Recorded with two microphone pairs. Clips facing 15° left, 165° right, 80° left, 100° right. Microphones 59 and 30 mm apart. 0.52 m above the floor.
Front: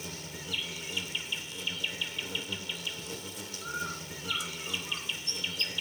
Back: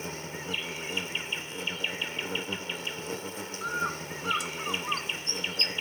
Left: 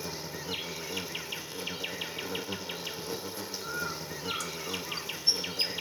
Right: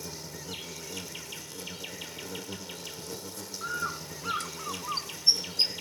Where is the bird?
145° right, 1.5 m.